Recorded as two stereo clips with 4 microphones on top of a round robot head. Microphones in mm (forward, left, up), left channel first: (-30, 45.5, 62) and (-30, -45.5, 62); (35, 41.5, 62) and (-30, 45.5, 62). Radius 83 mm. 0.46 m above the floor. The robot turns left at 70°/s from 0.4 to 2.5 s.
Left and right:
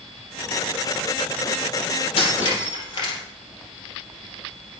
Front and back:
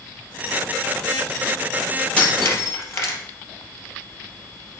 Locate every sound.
2.2 s breaking glass: 65° left, 4 m; by 3.2 s 40° left, 4 m